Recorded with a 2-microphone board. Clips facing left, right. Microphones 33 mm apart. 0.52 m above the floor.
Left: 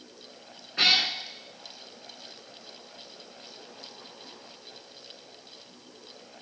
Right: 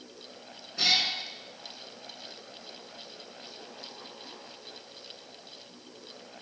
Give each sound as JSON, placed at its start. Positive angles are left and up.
{"t": 0.8, "sound": "a cat meowing", "side_deg": 50, "distance_m": 0.7}